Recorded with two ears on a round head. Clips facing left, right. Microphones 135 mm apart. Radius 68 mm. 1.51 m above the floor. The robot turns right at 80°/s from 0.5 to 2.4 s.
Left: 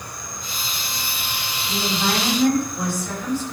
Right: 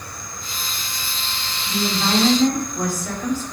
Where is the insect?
20° left, 1.6 m; by 3.5 s 175° left, 1.6 m.